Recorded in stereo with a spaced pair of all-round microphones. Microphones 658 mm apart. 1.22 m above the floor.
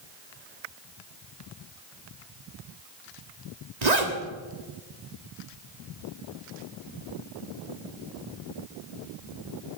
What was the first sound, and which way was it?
A zipper, 80° right.